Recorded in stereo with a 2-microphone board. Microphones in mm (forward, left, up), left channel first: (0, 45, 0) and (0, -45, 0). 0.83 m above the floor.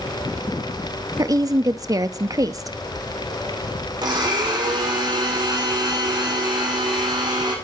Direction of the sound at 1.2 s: 40° right (ahead or behind).